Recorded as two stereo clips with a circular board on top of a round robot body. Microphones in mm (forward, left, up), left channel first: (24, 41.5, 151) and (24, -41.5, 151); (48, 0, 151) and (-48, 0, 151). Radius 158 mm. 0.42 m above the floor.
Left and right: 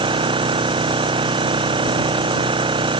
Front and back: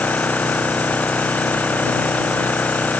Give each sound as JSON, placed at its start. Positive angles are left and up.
{"t": 0.0, "sound": "an engine running", "azimuth_deg": -75}